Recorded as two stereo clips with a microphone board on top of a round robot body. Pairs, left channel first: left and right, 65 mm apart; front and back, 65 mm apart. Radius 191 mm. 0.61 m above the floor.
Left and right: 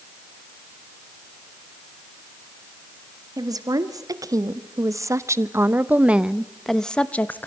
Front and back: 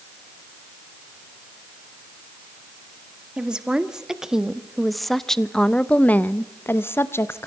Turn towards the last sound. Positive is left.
turn(degrees=35)